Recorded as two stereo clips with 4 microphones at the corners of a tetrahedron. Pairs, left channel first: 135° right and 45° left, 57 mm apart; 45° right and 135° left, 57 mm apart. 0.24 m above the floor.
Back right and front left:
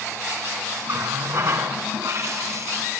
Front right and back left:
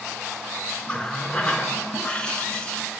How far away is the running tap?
About 1.8 m.